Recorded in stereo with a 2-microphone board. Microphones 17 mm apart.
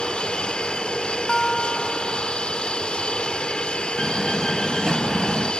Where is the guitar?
25° left (ahead or behind).